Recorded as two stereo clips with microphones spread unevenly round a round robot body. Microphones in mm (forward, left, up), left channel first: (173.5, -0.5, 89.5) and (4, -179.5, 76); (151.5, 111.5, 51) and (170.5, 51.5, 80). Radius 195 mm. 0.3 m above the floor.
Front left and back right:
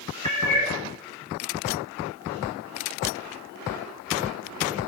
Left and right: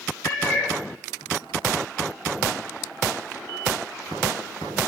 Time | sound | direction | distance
0.2 | a cat meowing | 160° left | 0.7 m